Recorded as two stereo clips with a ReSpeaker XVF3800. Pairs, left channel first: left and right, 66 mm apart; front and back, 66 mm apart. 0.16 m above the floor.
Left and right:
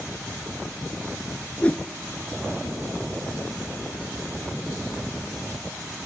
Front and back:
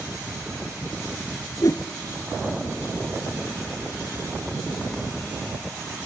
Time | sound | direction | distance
1.6 | a whoosh | 20° left | 0.7 m